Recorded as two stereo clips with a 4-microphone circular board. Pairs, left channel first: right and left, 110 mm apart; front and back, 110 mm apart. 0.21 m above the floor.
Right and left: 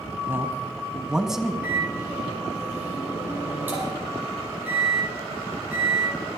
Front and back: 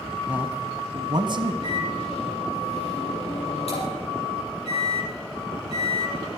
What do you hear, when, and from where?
0.3 s a man speaking: 115° left, 1.0 m; by 1.5 s straight behind, 1.4 m
1.6 s a microwave: 15° left, 5.5 m